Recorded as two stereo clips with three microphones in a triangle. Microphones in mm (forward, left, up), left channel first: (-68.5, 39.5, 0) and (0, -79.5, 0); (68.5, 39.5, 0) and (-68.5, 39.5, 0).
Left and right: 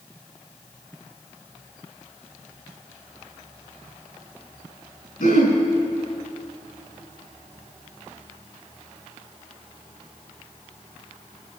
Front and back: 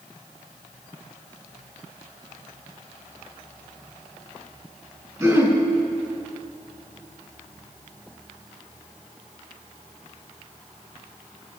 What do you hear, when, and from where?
5.2 s throat clearing: 115° left, 4.5 m